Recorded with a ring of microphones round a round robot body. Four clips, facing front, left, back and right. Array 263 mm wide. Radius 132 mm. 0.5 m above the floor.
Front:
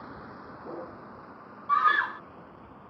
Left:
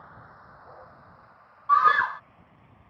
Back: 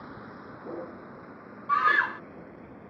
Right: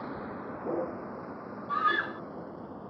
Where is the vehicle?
100° right; by 2.9 s 115° right.